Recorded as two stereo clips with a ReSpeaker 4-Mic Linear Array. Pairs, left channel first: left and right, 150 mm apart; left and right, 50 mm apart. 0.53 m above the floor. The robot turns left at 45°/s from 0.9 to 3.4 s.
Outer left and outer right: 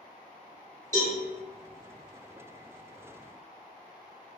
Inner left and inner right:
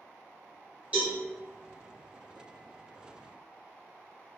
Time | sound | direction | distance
0.9 | a cowbell | 25° right (ahead or behind) | 1.6 m